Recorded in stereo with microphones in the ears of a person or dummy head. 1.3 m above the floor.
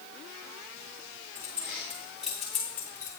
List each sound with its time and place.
1.4 s keys jangling: 10° right (ahead or behind), 1.8 m; by 3.1 s 10° left (ahead or behind), 1.0 m